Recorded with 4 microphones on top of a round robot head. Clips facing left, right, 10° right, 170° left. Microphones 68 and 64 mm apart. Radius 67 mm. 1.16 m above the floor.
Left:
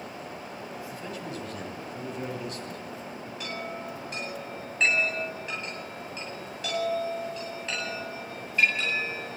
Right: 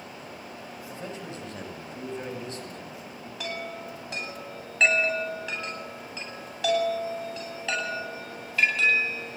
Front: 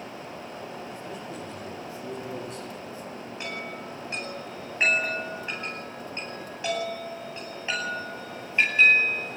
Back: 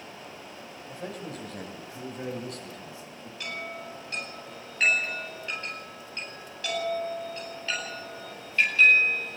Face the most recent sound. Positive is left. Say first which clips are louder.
# right 2 dB, back 1 dB
turn(degrees=-80)